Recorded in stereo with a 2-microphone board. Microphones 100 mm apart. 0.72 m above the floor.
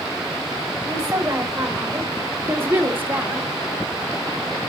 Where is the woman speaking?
25° right (ahead or behind), 3.5 m; by 3.5 s 15° right (ahead or behind), 1.9 m.